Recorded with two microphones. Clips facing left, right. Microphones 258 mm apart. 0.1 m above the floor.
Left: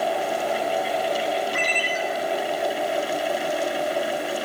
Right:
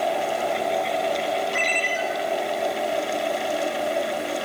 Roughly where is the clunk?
No clunk in this recording.